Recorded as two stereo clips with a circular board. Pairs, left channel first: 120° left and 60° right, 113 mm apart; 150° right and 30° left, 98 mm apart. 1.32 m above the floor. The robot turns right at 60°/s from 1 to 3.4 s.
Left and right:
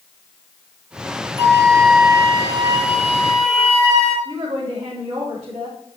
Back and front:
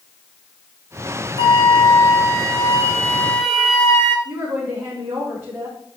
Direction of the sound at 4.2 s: 50° right.